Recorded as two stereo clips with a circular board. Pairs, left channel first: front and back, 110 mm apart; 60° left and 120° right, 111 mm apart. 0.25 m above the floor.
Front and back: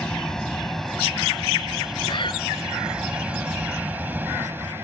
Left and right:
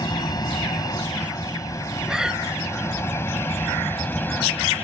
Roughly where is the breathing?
Ahead right.